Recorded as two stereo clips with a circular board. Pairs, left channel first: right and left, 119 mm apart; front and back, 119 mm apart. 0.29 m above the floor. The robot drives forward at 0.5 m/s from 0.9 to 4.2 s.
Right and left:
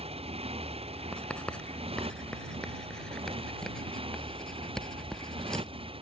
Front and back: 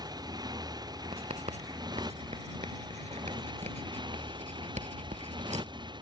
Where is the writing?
170° right; by 5.7 s 175° right.